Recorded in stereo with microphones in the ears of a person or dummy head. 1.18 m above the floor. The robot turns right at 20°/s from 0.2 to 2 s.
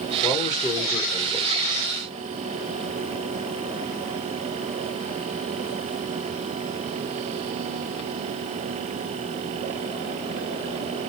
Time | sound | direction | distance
0.2 | a man speaking | 35° left (ahead or behind) | 1.0 m